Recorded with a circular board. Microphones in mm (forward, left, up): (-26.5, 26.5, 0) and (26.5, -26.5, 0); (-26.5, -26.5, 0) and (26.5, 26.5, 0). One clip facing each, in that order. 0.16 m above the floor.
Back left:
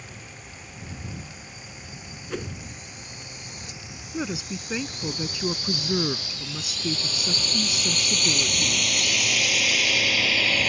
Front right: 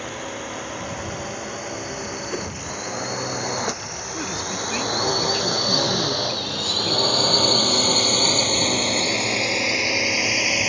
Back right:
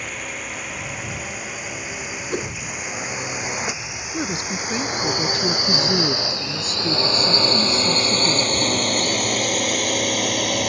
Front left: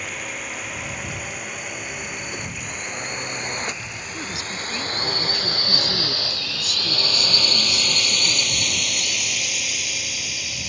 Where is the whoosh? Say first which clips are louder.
Even, back right 6 dB; 125° right.